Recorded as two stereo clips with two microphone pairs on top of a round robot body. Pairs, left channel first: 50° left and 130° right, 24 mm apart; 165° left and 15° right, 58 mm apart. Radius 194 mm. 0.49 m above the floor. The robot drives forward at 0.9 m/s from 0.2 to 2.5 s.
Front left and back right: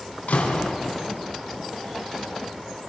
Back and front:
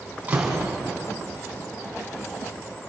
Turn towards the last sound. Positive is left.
turn(degrees=80)